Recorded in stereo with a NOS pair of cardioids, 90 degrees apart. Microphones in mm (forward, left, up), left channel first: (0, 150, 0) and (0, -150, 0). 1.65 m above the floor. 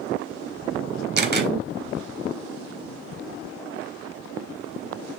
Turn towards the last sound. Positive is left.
turn(degrees=-35)